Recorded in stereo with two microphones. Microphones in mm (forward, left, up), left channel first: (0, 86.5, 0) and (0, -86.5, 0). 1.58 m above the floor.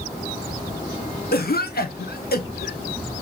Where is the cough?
65° left (ahead or behind), 0.8 m.